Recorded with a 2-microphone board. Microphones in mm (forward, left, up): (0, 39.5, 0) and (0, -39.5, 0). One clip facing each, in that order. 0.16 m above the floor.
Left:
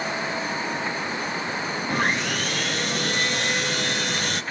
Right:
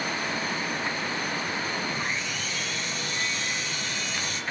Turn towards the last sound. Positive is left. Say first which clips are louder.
# left 7 dB
turn(degrees=65)  # may be behind; listen again after turning